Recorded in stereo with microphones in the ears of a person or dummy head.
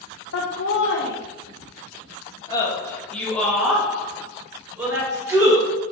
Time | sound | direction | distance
0.3 | laughter | 80° left | 1.5 m